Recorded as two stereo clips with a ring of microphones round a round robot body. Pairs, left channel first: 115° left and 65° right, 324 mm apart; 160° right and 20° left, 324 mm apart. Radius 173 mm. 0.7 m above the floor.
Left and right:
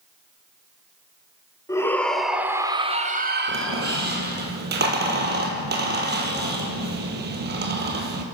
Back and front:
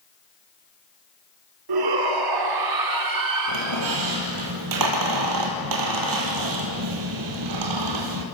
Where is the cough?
I don't hear a cough.